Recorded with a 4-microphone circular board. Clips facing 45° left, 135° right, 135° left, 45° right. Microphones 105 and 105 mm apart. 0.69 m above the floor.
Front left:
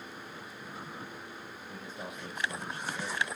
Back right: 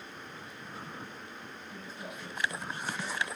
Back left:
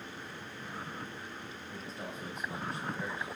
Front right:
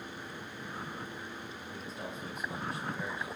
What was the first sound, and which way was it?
A man speaking, 40° left.